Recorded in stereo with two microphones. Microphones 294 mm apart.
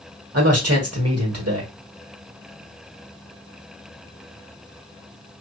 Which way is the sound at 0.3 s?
55° right (ahead or behind).